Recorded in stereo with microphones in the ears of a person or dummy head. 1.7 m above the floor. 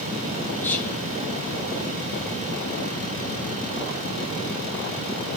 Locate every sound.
0.6 s whispering: 15° left (ahead or behind), 0.9 m